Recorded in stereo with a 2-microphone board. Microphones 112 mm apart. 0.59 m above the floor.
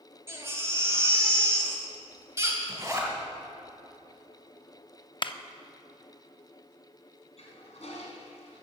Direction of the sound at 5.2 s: 45° left (ahead or behind).